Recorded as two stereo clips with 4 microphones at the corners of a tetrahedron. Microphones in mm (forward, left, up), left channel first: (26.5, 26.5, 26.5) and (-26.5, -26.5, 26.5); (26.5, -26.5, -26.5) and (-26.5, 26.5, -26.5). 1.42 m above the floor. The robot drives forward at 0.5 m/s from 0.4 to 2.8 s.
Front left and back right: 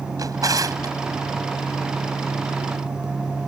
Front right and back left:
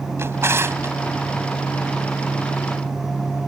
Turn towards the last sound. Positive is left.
turn(degrees=-170)